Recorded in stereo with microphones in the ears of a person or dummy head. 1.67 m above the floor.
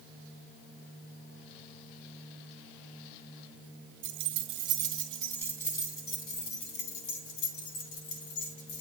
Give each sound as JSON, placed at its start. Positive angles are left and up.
{"t": 4.0, "sound": "keys jangling", "side_deg": -45, "distance_m": 1.1}